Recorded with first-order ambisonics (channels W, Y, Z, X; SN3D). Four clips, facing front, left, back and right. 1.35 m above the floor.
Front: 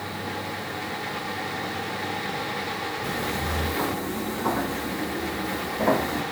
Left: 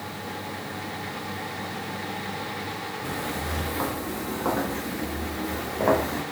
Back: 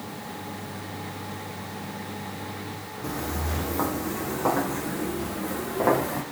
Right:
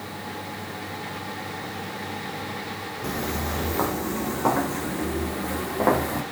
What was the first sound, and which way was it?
Footsteps, 100° right.